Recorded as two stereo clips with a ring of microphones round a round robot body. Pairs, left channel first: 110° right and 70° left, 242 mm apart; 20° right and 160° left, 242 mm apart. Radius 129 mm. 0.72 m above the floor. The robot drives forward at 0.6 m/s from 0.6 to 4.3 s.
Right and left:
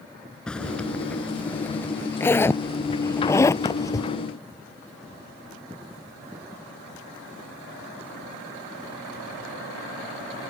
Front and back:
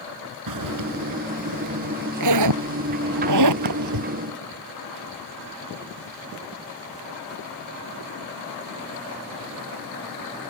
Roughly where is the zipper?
Behind.